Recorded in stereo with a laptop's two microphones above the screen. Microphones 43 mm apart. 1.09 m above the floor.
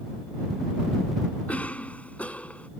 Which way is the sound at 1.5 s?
35° left (ahead or behind).